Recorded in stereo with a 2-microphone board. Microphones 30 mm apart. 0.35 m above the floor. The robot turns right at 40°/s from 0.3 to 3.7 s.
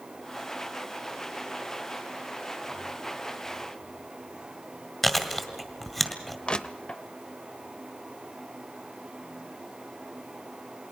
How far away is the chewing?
About 2.0 m.